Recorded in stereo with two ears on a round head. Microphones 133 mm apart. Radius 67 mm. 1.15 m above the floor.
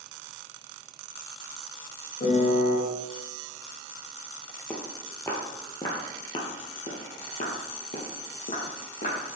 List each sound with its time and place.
2.2 s a piano: 55° left (ahead or behind), 2 m
4.7 s footsteps: 10° left (ahead or behind), 1.7 m; by 9.2 s 60° left (ahead or behind), 2.5 m